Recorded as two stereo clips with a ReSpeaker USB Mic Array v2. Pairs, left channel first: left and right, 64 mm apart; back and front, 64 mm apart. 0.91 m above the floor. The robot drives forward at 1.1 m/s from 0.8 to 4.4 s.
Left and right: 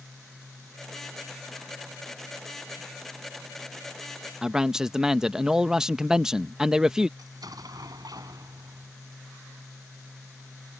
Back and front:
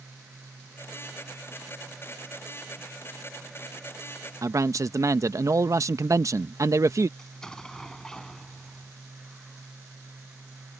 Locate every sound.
4.4 s a man speaking: 10° right
7.2 s an explosion: 100° right